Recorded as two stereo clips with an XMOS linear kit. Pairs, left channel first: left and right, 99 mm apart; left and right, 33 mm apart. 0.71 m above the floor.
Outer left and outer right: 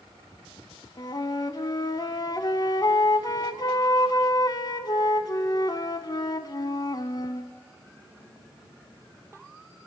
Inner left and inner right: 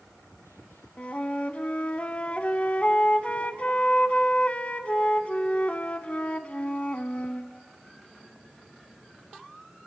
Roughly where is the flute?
Left.